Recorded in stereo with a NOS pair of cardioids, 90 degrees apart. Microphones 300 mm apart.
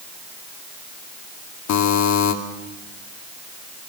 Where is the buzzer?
70° left, 2.5 m.